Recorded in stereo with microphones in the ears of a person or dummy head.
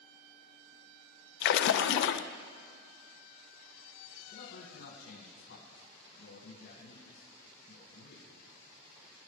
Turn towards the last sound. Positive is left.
turn(degrees=65)  # may be behind; listen again after turning